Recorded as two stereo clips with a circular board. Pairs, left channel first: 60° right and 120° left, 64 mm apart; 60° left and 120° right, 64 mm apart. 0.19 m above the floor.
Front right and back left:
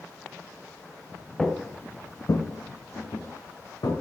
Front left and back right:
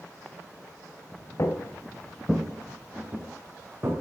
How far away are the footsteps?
About 1.2 m.